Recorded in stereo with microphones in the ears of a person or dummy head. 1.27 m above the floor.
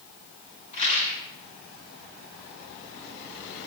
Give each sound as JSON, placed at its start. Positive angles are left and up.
{"t": 0.7, "sound": "a rattle", "side_deg": 40, "distance_m": 7.5}